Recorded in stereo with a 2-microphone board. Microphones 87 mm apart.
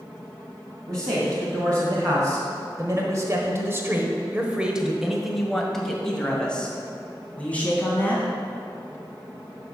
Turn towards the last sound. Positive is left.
turn(degrees=20)  # may be behind; listen again after turning